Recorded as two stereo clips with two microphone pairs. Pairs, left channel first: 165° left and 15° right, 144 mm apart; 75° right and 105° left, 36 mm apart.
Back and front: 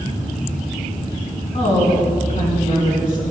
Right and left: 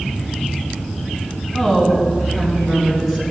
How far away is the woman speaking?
About 2.5 m.